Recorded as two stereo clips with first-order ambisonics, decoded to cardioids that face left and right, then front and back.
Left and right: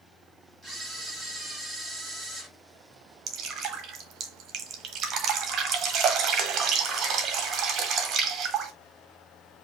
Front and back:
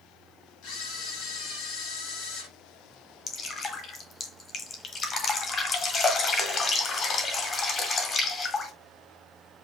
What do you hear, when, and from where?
0.6 s a camera shutter: straight ahead, 3.5 m
3.3 s dripping: 50° right, 1.2 m